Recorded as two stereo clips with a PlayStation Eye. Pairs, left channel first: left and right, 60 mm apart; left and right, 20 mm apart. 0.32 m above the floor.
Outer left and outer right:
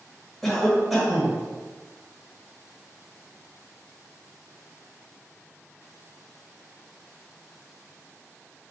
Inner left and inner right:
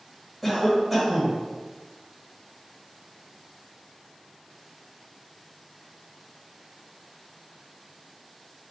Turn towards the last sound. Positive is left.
turn(degrees=5)  # may be behind; listen again after turning